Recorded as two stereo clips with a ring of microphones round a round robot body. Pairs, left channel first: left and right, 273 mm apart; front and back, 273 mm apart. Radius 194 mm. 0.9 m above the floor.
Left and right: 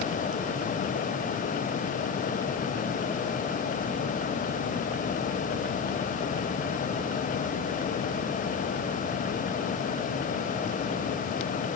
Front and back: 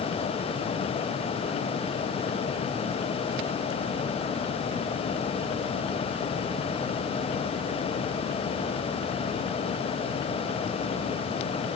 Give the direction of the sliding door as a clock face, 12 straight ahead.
I don't hear a sliding door.